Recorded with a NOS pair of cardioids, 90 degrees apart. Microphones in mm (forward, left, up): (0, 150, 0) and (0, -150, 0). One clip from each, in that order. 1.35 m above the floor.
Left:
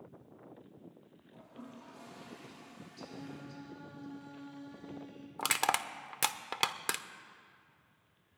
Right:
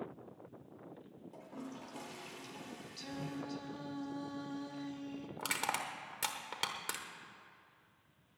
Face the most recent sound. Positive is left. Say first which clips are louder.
# left 6 dB
turn(degrees=45)